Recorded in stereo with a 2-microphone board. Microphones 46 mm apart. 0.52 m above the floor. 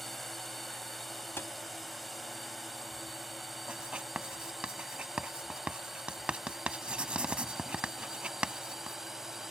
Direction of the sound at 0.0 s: 5° left (ahead or behind).